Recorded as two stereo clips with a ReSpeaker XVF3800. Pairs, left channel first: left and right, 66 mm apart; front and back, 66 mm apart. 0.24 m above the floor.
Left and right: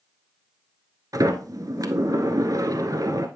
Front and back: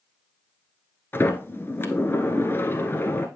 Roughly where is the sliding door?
Ahead right.